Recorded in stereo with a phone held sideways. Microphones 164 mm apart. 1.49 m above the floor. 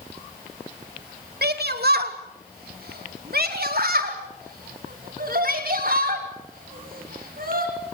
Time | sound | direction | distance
1.4 | a shout | 75° right (ahead or behind) | 2.5 m